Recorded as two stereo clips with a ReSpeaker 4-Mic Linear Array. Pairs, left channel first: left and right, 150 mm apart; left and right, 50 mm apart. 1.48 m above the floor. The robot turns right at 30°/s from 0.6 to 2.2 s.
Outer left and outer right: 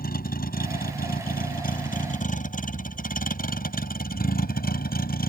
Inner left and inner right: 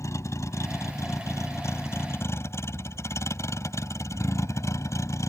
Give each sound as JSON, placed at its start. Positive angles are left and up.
{"t": 0.0, "sound": "a vehicle", "side_deg": 85}